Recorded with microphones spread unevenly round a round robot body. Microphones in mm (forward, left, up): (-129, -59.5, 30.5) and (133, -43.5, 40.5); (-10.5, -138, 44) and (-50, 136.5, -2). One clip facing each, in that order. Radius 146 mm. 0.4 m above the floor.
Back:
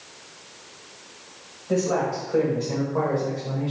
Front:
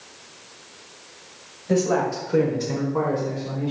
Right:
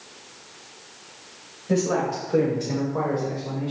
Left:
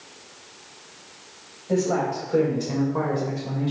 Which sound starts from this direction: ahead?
A man speaking, at 1.7 s.